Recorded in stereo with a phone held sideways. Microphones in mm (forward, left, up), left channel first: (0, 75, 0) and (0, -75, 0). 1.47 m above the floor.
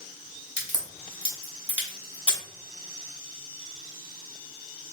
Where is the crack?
40° left (ahead or behind), 2.5 m.